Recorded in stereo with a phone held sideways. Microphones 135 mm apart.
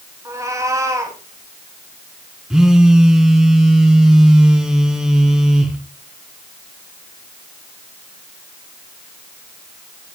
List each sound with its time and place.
0.2 s a cat meowing: 20° right (ahead or behind), 4 m
2.5 s a phone buzzing: 5° right (ahead or behind), 3 m